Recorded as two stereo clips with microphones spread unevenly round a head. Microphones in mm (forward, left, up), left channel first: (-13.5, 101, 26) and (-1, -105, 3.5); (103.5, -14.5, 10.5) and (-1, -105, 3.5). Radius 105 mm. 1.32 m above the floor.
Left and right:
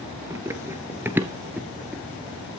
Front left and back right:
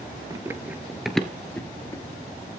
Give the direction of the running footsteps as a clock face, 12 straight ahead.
5 o'clock.